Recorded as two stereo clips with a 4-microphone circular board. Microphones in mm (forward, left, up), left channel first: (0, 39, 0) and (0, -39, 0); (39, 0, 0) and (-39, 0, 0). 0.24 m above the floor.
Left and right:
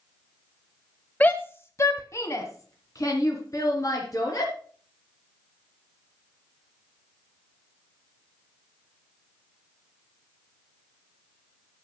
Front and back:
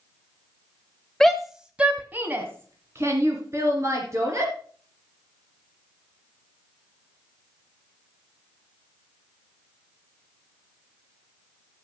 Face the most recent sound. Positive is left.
turn(degrees=135)